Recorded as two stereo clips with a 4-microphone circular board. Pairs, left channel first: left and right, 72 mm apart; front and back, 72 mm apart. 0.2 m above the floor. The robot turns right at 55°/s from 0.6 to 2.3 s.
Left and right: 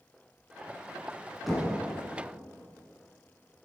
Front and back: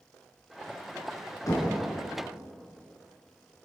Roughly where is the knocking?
Ahead.